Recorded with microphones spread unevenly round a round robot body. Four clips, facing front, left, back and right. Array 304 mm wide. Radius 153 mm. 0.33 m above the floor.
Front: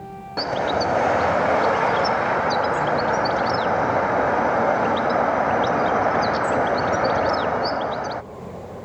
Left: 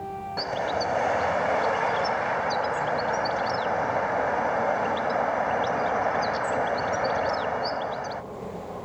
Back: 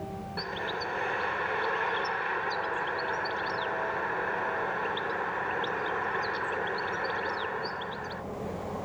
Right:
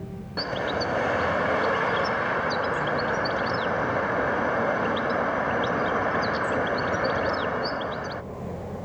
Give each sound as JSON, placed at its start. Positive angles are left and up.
{"t": 0.4, "sound": "a bird", "azimuth_deg": -15}